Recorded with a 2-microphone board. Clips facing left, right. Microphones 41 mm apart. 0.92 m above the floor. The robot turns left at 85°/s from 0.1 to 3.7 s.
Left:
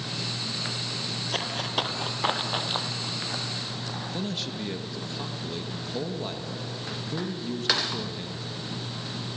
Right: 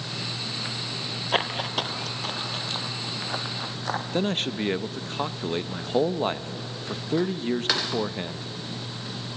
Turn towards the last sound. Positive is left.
turn(degrees=-50)  # may be behind; listen again after turning